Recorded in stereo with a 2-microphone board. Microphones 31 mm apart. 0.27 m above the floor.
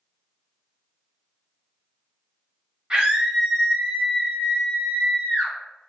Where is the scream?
25° right (ahead or behind), 1.2 m; by 5.5 s 40° left (ahead or behind), 1.4 m.